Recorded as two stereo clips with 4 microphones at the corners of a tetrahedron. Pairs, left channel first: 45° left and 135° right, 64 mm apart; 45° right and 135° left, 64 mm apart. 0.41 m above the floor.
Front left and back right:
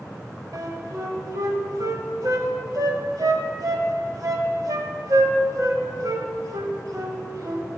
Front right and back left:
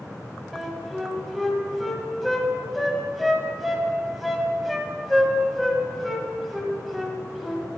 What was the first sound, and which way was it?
A flute, 135° right.